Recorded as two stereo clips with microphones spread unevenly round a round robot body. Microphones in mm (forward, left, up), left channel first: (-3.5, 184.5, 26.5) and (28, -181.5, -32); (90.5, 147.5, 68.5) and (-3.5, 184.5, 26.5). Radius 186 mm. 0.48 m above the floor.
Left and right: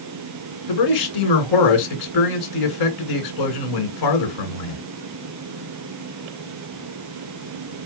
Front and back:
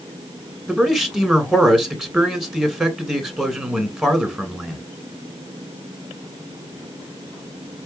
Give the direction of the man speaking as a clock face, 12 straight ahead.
9 o'clock.